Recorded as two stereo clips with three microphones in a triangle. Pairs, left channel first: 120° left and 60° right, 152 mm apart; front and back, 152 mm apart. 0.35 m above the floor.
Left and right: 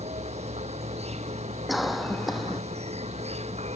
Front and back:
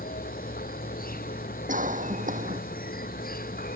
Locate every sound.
0.0 s an insect: 15° right
1.7 s a cough: 150° right